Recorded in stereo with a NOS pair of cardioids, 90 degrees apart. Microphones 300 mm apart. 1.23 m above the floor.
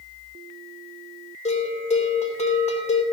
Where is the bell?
20° left, 3.5 m.